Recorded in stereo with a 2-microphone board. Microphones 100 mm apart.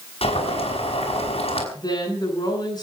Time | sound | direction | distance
0.2 | boiling | 85° left | 5.5 m
1.8 | a woman speaking | 45° left (ahead or behind) | 10 m